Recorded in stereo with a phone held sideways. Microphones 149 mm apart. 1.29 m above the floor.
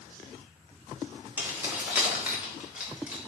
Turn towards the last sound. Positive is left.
turn(degrees=-10)  # may be behind; listen again after turning